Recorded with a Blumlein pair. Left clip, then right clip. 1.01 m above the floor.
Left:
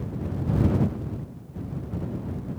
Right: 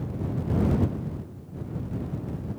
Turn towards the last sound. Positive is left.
No sound to turn to.